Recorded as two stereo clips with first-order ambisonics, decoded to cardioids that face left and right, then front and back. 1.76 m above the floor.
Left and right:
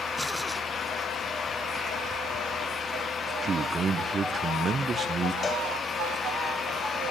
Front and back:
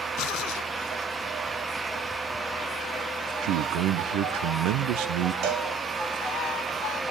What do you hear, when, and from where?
3.4 s a man speaking: 160° right, 0.8 m
5.4 s a cowbell: 160° left, 2 m